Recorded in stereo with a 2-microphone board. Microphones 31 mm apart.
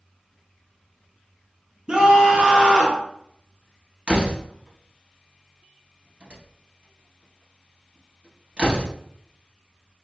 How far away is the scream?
About 1.1 m.